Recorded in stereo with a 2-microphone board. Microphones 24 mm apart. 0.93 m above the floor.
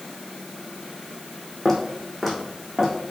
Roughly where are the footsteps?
Centre.